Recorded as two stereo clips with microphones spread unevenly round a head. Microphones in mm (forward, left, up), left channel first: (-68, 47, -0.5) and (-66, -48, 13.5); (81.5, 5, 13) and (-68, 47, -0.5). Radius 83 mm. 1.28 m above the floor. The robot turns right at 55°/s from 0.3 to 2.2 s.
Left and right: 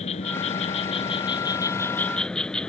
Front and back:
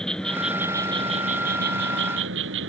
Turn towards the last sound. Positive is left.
turn(degrees=175)